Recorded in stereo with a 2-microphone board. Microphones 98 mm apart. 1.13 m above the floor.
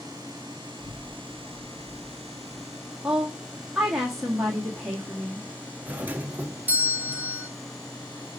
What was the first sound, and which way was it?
A child speaking, 40° left (ahead or behind).